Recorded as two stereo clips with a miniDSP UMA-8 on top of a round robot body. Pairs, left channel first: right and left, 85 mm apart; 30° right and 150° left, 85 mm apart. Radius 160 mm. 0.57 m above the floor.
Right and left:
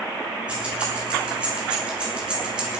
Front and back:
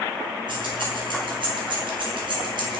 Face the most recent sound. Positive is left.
turn(degrees=170)